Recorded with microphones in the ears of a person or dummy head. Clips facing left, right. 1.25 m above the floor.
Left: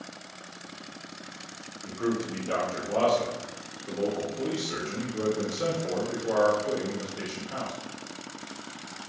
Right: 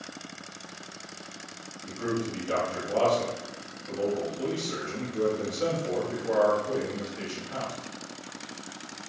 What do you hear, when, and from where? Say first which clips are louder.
1.8 s a man speaking: left 1 dB; 40° left (ahead or behind), 0.6 m